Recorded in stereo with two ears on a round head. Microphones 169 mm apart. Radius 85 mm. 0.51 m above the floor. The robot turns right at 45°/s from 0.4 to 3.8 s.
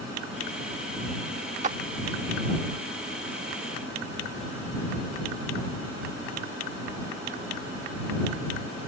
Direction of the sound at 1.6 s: 40° right (ahead or behind).